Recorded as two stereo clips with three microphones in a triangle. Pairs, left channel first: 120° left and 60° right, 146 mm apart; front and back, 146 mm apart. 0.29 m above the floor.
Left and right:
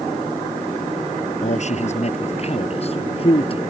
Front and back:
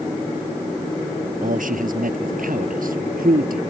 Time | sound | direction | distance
1.4 | a man speaking | 155° left | ?